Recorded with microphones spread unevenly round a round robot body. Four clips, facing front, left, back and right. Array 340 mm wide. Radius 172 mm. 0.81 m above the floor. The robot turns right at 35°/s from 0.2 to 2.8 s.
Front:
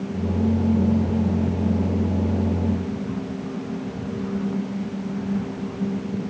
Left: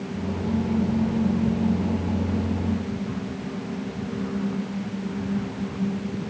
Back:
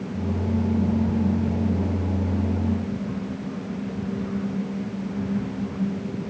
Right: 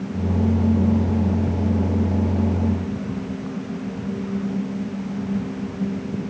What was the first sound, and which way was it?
Only background noise.